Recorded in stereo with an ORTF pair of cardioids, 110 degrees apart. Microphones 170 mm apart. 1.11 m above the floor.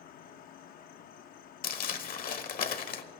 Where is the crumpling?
55° left, 1.3 m.